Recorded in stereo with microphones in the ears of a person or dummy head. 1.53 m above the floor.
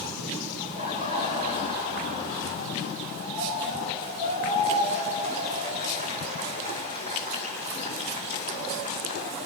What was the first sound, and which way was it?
Laughter, 50° right (ahead or behind).